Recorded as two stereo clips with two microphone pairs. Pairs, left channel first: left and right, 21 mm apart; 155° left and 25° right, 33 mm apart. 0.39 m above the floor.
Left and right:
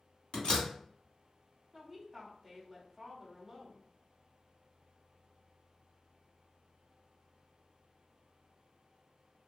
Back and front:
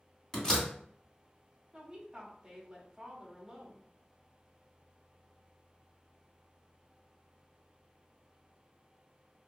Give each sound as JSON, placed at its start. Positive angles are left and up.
{"t": 0.3, "sound": "a door slam", "azimuth_deg": 90, "distance_m": 1.9}
{"t": 1.7, "sound": "a woman speaking", "azimuth_deg": 10, "distance_m": 0.8}